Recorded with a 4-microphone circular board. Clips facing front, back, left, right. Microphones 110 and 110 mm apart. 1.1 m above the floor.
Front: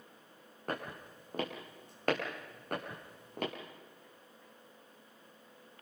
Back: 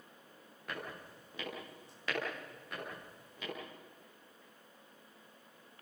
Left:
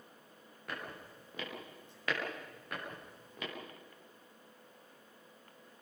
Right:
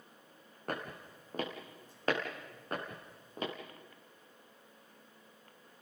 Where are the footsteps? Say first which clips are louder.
Front 5 dB, right 4 dB; 45° right, 4.5 m; by 3.5 s 30° right, 6 m.